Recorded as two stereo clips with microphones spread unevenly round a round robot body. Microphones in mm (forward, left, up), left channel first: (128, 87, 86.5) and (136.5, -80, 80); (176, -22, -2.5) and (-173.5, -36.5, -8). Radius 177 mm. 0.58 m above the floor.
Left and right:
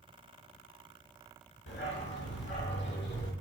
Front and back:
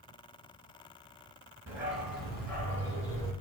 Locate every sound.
1.7 s a dog barking: 95° left, 3.5 m; by 3.3 s 85° left, 4 m